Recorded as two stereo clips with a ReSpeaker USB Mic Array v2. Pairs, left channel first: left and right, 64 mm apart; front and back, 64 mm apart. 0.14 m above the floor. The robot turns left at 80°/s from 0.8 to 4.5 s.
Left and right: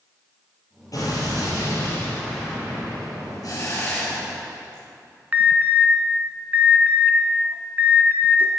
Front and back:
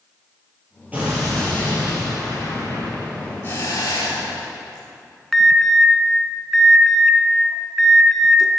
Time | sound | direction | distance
0.9 | an explosion | 115° left | 3.5 m
3.4 | a hiss | 55° left | 4.5 m
5.3 | an alarm | 85° right | 0.8 m